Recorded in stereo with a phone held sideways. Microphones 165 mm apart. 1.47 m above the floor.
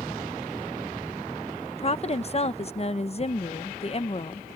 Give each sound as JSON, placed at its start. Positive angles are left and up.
{"t": 1.7, "sound": "a woman speaking", "side_deg": 40}